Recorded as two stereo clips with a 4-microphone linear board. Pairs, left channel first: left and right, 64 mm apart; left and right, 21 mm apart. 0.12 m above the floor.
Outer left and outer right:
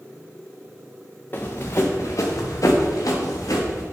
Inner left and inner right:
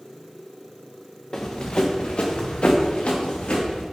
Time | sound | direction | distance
1.3 | running footsteps | 35° left (ahead or behind) | 0.9 m